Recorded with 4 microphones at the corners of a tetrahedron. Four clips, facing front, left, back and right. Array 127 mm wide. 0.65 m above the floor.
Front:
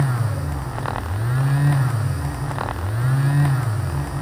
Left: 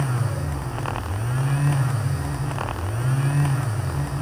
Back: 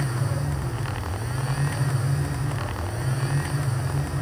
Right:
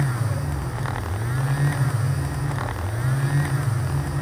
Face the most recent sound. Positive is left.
No sound to turn to.